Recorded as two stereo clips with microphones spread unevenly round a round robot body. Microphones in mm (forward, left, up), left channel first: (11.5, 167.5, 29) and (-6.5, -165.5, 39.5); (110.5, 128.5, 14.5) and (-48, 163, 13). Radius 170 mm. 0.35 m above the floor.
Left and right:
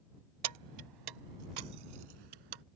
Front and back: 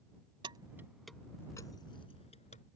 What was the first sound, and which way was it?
Keys jangling, 125° right.